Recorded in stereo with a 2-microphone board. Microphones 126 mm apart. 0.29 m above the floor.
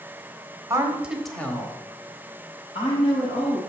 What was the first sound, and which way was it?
A woman speaking, 25° right (ahead or behind).